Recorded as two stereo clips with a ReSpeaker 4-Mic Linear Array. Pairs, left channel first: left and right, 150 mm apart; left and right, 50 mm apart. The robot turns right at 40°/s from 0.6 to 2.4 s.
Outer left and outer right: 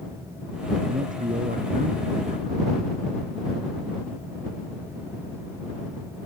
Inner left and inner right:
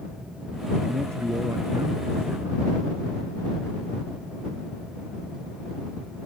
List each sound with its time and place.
0.9 s a man speaking: 120° right; by 2.7 s 60° right